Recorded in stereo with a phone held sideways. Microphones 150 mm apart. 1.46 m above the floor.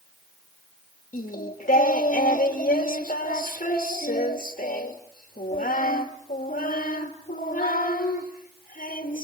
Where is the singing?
70° left (ahead or behind), 1.6 m.